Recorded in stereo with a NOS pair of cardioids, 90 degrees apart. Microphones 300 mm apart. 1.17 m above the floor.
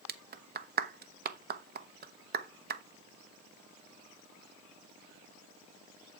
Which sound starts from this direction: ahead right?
A clap, at 0.1 s.